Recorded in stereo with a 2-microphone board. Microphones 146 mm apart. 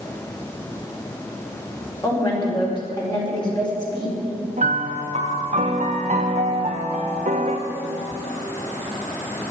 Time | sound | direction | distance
2.0 | a woman speaking | 30° left (ahead or behind) | 4.5 m
4.6 | a piano | 55° right (ahead or behind) | 1.4 m